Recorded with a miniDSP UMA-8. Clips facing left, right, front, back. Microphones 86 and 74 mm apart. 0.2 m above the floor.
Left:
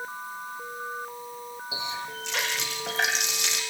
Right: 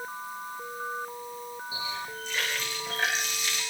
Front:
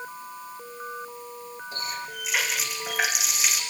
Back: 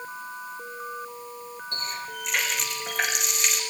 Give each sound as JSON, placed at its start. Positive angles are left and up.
{"t": 1.7, "sound": "a running tap", "azimuth_deg": 85, "distance_m": 7.0}